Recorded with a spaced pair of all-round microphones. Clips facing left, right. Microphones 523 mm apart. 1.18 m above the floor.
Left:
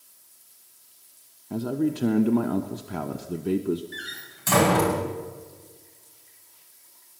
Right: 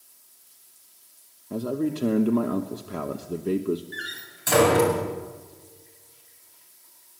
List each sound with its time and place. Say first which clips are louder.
1.5 s a man speaking: left 1 dB; 10° left (ahead or behind), 1.0 m
3.9 s a door slam: even; 20° left (ahead or behind), 6 m